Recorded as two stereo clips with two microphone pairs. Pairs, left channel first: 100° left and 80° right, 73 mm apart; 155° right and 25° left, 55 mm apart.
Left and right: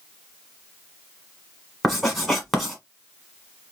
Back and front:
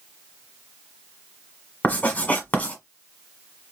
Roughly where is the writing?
Behind.